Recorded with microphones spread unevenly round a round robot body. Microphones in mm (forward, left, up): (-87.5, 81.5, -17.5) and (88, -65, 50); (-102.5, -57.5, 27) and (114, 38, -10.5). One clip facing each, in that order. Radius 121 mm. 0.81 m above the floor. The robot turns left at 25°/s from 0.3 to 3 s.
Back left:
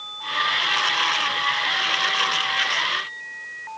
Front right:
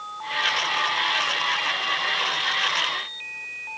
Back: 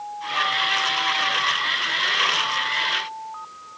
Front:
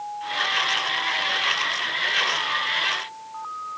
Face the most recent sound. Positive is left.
No sound to turn to.